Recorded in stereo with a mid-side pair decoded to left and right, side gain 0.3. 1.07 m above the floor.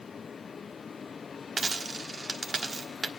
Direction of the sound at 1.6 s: 50° right.